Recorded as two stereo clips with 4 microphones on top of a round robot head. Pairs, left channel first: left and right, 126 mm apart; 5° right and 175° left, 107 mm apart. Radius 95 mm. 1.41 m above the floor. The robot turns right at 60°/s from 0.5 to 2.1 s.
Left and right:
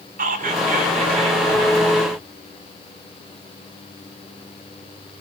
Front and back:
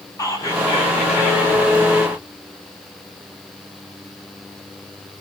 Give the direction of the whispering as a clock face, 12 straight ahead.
3 o'clock.